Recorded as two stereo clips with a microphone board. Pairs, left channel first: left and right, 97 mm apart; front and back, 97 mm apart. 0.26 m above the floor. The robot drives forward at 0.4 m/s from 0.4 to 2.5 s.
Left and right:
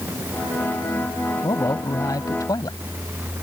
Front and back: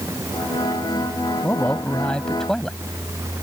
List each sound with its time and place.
1.4 s a man speaking: 65° left; by 2.8 s 80° left